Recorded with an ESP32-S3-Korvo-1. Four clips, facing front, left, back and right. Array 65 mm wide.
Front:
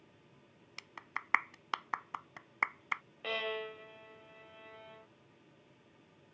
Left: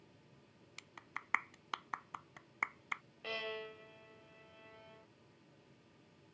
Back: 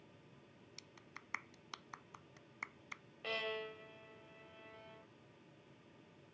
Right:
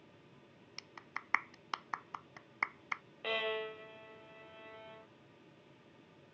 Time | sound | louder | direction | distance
0.8 | a clap | right 2 dB, front 16 dB | 10° right | ?
3.2 | a violin | right 6 dB, front 4 dB | 50° right | ?